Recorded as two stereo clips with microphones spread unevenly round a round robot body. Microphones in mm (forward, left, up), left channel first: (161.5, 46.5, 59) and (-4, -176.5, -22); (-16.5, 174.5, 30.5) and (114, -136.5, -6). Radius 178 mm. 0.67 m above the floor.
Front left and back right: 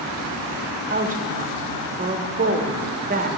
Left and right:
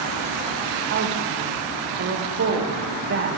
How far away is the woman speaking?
About 0.9 m.